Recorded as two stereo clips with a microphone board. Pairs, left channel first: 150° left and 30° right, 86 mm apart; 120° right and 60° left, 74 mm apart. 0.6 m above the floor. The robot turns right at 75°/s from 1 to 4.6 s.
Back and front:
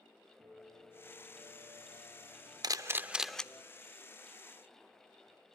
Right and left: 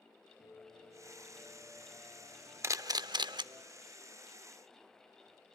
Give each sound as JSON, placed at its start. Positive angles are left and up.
{"t": 0.4, "sound": "a piano", "azimuth_deg": -95, "distance_m": 4.0}
{"t": 2.6, "sound": "a camera shutter", "azimuth_deg": 10, "distance_m": 0.6}